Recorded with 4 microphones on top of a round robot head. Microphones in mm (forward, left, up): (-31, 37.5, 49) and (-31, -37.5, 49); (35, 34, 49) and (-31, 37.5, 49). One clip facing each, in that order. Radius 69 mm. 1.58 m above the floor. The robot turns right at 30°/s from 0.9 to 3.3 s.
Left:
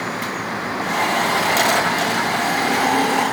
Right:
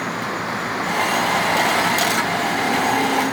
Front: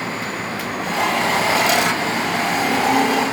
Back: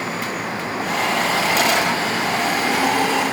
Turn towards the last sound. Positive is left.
No sound to turn to.